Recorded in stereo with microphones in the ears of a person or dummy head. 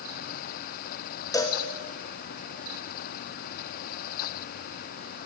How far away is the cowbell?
About 1.4 m.